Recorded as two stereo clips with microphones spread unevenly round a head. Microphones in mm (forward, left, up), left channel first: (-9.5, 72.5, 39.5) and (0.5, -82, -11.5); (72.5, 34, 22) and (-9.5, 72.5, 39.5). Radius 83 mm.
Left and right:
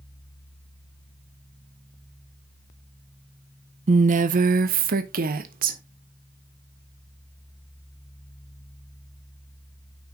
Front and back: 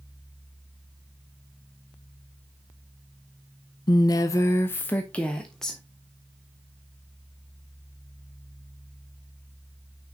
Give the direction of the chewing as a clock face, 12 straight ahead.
No chewing in this recording.